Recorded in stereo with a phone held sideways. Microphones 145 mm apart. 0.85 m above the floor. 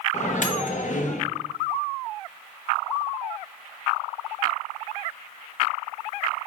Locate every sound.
0.1 s a microwave: 60° left (ahead or behind), 0.6 m